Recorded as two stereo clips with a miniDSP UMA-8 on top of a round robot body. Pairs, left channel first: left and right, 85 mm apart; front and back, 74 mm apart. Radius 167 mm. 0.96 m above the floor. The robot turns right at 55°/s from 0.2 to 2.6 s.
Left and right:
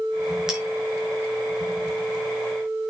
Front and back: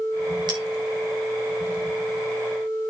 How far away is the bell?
About 5 m.